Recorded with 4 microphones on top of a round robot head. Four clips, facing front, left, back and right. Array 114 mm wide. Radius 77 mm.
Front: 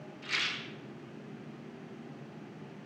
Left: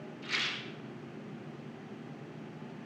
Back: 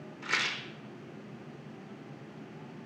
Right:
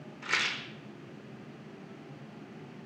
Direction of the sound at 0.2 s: 135° right.